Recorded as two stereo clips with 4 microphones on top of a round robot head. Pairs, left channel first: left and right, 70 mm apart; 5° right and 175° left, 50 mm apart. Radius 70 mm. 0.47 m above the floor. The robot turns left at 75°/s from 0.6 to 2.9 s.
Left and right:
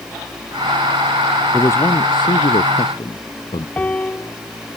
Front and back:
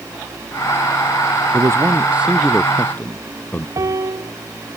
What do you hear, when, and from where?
1.5 s a man speaking: 155° left; by 3.7 s 55° left
3.8 s a piano: 160° left